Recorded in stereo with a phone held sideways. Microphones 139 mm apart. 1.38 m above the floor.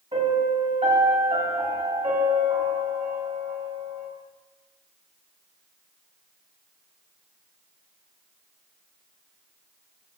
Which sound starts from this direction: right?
A piano, at 0.1 s.